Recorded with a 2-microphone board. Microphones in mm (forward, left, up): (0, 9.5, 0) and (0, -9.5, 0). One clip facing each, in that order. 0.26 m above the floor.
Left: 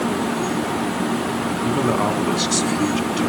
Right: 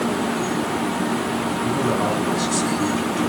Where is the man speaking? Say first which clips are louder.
Left 2 dB; 40° left (ahead or behind), 3 m.